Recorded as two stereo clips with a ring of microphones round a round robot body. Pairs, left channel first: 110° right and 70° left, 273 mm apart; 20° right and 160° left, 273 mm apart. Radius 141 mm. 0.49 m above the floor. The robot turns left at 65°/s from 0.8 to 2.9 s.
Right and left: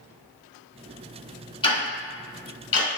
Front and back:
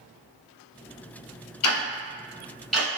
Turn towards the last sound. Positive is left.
turn(degrees=-120)